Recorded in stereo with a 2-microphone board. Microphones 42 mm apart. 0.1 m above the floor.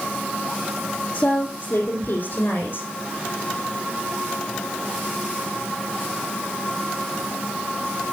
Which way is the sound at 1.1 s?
65° left (ahead or behind).